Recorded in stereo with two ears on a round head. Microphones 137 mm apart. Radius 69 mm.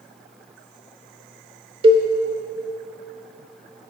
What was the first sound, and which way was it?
A cowbell, 35° right (ahead or behind).